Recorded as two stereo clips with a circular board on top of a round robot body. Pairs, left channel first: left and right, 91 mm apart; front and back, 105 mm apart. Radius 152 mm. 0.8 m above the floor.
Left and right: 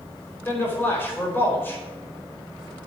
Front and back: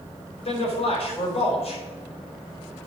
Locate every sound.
0.5 s a man speaking: 20° left, 4.5 m